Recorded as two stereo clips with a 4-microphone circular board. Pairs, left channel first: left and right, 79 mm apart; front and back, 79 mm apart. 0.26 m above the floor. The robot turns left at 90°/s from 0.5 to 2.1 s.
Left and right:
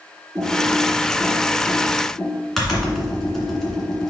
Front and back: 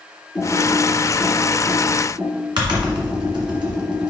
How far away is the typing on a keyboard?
About 2.0 m.